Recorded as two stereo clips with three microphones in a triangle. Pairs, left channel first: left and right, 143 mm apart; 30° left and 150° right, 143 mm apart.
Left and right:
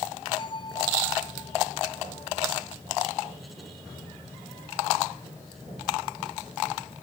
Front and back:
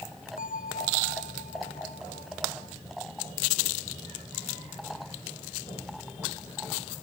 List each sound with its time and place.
0.4 s a bell: 35° left